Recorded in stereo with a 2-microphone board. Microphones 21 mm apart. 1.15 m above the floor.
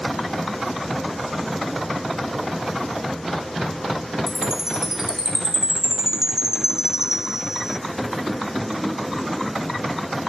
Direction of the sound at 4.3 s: 20° right (ahead or behind).